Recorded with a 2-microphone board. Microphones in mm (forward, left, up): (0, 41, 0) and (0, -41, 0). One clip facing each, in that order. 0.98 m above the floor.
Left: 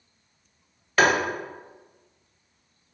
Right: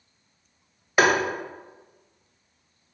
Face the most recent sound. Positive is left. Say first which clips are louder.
# even
turn(degrees=-15)  # may be behind; listen again after turning